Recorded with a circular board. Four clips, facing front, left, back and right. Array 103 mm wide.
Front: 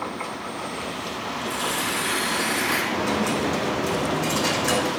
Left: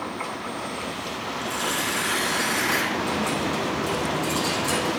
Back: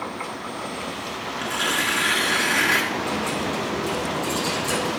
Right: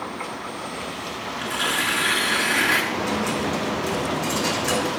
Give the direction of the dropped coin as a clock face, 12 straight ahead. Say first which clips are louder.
Right 1 dB, front 2 dB; 1 o'clock.